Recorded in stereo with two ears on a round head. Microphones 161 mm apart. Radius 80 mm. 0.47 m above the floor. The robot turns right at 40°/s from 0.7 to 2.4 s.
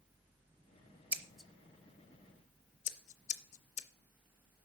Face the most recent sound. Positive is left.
turn(degrees=40)  # may be behind; listen again after turning